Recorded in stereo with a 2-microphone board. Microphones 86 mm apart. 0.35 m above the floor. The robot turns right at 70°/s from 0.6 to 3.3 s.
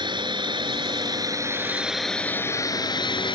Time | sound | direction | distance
0.0 | a drone | 95° right | ?